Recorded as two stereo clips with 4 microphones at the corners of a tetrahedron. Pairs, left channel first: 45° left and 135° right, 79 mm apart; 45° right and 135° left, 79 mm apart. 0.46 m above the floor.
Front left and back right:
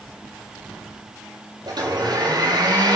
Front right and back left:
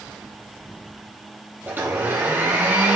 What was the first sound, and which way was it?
A blender, 160° right.